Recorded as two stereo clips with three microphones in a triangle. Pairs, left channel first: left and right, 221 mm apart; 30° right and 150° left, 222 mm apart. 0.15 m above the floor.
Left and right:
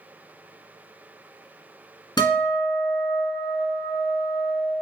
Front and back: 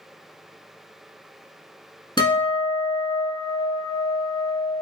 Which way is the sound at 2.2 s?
25° left.